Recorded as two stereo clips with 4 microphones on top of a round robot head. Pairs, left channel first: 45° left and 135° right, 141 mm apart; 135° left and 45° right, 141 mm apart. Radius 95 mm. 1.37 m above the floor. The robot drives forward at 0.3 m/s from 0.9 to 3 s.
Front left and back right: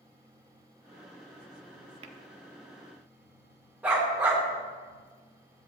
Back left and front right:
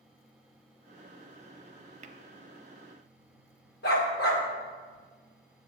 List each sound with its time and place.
2.0 s tapping: 85° right, 0.6 m; by 2.2 s 90° right, 0.6 m
3.8 s a dog barking: 145° left, 1.9 m